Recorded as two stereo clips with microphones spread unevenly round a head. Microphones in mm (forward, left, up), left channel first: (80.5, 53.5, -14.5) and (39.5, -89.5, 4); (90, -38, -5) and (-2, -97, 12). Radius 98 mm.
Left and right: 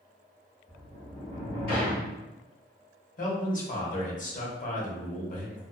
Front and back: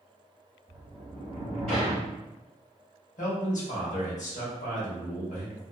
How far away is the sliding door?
About 1.0 m.